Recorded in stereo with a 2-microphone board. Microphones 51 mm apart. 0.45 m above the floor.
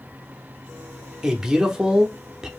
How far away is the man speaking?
About 0.7 m.